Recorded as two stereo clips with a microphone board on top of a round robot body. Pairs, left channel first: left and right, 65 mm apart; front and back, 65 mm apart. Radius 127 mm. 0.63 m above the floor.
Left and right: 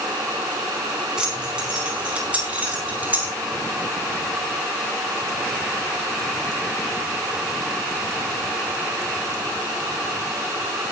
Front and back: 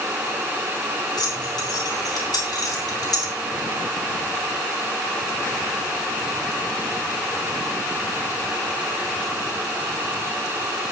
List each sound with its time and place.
1.2 s keys jangling: 10° right, 4.5 m; by 3.3 s 25° right, 5 m